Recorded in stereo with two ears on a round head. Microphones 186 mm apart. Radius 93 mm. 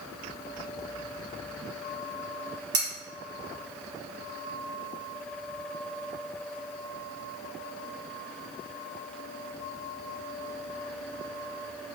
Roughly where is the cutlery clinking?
Right.